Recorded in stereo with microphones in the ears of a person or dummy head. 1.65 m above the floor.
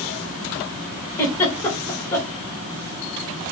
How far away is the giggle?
About 1.7 m.